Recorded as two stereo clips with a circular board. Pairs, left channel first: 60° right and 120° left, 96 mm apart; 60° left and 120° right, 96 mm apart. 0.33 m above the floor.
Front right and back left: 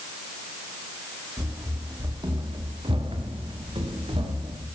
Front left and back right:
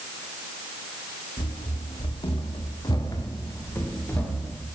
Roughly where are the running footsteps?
Ahead left.